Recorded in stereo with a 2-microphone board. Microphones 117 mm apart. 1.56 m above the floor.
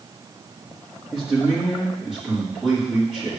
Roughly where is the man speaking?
Centre.